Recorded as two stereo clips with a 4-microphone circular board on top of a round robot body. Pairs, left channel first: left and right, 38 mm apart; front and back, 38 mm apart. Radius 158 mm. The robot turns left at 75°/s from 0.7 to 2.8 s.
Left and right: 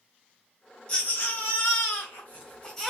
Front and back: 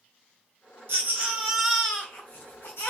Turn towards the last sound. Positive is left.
turn(degrees=10)